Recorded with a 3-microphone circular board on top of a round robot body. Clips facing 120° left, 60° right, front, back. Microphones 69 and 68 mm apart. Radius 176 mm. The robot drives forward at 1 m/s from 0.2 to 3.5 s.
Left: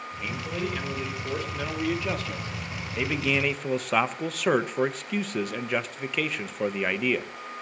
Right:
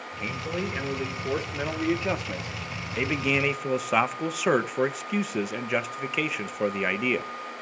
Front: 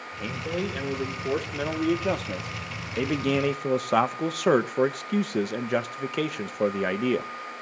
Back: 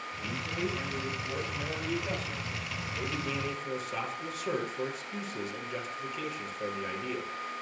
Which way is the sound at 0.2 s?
5° left.